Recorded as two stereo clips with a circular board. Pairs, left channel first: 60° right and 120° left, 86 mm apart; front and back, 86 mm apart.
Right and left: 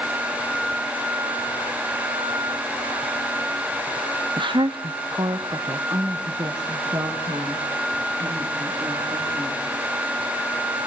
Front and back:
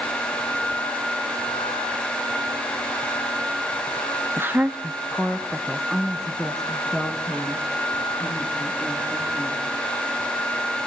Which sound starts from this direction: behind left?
A woman speaking, at 4.4 s.